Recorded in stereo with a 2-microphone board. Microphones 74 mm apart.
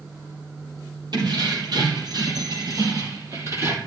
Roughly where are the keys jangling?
Right.